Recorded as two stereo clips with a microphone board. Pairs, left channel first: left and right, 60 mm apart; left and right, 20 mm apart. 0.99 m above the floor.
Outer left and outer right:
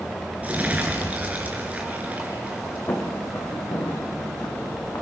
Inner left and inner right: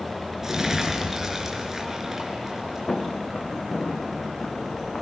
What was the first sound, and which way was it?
Crumpling, 25° right (ahead or behind).